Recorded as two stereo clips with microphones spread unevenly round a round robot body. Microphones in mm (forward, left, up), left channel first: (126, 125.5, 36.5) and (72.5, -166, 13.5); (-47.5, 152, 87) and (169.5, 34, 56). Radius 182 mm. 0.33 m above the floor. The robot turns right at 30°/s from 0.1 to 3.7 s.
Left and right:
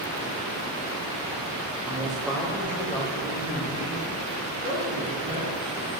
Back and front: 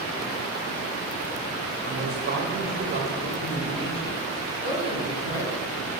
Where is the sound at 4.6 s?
145° left, 3.5 m.